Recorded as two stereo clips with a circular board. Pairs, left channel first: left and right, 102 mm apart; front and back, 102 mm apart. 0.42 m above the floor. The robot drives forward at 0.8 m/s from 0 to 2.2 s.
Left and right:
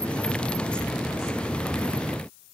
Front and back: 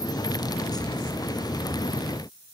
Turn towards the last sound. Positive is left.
No sound to turn to.